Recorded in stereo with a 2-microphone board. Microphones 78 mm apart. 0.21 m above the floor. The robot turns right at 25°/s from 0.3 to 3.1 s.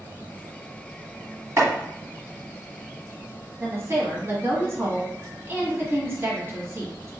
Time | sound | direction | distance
1.6 | chopping | 35° right (ahead or behind) | 1.5 m
3.6 | a woman speaking | 35° right (ahead or behind) | 1.5 m